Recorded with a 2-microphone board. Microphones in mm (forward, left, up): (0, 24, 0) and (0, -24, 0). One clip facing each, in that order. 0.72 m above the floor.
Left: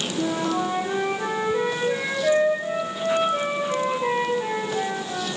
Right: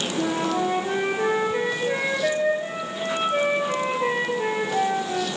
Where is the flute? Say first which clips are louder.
Even; 50° right (ahead or behind), 5 m.